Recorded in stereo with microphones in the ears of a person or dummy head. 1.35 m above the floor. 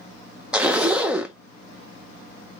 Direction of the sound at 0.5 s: Centre (ahead or behind).